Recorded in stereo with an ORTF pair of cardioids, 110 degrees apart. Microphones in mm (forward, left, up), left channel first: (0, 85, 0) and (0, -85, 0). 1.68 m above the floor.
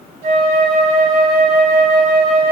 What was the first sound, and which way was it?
A flute, 60° right.